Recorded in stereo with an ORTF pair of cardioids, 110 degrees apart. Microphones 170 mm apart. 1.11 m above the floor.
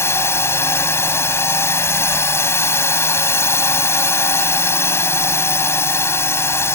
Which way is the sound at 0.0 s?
15° left.